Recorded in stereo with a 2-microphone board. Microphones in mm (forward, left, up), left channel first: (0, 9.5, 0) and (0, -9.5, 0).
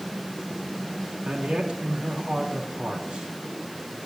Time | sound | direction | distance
1.2 | a man speaking | 70° right (ahead or behind) | 3.5 m